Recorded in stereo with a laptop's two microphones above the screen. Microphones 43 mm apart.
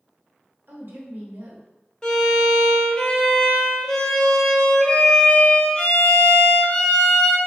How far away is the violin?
About 0.8 m.